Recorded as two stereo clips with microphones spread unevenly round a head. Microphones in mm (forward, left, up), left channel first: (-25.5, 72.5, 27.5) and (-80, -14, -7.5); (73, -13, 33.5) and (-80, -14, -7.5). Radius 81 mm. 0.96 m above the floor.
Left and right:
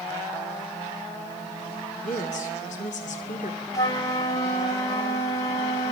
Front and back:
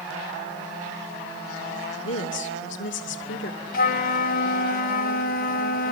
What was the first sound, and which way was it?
A woman speaking, 20° left.